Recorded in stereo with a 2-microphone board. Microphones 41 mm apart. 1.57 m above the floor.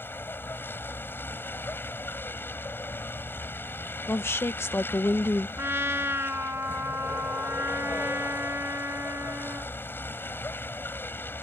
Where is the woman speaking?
65° left (ahead or behind).